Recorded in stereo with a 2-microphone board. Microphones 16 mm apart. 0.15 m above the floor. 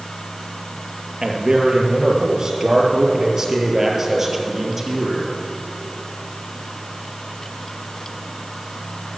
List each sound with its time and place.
1.2 s a man speaking: 50° right (ahead or behind), 3 m; by 5.4 s 10° right (ahead or behind), 3.5 m